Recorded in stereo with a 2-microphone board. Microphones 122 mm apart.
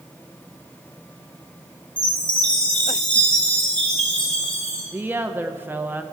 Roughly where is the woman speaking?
Centre.